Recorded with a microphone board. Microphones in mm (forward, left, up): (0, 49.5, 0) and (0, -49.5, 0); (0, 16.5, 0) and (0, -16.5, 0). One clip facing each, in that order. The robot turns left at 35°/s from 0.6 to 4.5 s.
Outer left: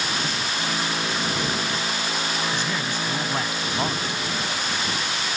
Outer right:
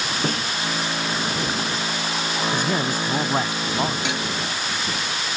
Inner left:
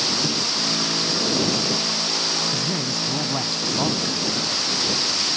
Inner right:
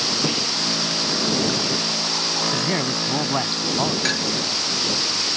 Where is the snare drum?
50° right (ahead or behind).